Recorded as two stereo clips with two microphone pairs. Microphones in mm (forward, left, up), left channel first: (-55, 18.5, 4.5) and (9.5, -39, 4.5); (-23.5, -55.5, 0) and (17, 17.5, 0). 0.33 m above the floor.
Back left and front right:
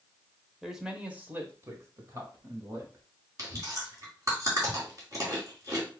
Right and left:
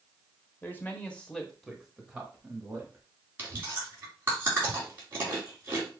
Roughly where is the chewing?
Ahead.